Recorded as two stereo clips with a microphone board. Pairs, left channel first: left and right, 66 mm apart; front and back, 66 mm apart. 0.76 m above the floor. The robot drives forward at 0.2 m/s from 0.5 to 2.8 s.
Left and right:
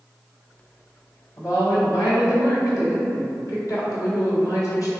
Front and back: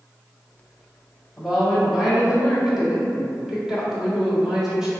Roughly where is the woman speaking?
Left.